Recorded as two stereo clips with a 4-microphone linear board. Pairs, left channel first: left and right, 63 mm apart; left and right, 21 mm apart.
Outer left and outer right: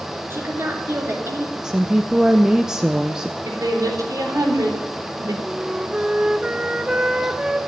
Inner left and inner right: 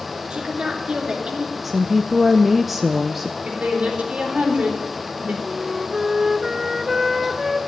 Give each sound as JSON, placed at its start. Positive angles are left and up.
{"t": 0.3, "sound": "a woman speaking", "side_deg": -45, "distance_m": 3.0}
{"t": 1.6, "sound": "a woman speaking", "side_deg": -10, "distance_m": 0.6}
{"t": 3.5, "sound": "a woman speaking", "side_deg": -75, "distance_m": 4.0}
{"t": 5.4, "sound": "a flute", "side_deg": -20, "distance_m": 0.8}